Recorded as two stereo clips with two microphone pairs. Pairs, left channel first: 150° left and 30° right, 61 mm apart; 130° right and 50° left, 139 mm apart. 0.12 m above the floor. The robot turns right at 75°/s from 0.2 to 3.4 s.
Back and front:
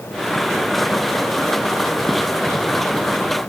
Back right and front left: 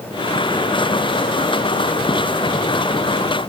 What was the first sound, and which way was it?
Only background noise.